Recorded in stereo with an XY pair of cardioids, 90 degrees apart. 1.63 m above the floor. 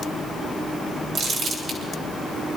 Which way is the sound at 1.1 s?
70° right.